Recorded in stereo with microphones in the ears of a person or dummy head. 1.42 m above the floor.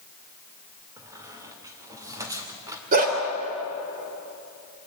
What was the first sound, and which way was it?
A squeak, 10° right (ahead or behind).